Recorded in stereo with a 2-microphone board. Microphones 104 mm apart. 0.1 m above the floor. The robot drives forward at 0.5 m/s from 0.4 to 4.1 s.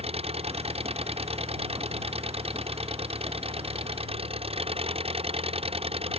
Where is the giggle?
I don't hear a giggle.